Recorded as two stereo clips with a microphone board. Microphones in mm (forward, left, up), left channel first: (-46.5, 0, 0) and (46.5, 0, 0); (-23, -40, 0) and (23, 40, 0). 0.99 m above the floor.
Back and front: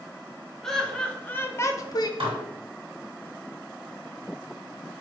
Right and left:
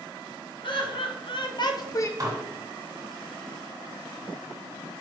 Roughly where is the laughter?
Right.